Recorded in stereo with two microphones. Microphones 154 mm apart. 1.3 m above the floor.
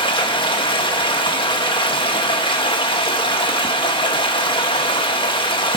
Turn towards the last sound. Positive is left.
turn(degrees=30)  # may be behind; listen again after turning